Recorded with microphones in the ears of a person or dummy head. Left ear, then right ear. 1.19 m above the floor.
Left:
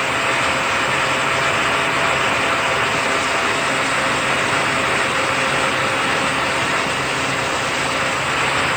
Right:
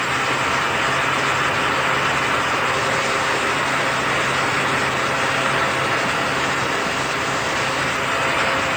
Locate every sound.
Only background noise.